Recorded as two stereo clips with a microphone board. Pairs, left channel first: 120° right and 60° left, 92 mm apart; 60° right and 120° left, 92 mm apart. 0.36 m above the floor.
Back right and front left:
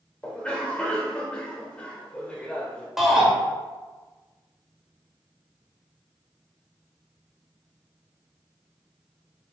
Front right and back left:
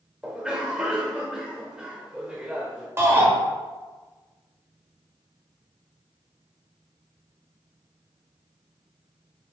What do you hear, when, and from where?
0.2 s a cough: 175° right, 0.9 m
3.0 s a shout: 145° left, 0.9 m